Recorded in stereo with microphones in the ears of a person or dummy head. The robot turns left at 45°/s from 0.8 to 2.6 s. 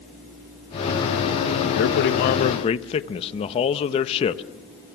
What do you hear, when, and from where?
1.8 s a man speaking: 70° left, 1.1 m; by 4.4 s 35° left, 1.1 m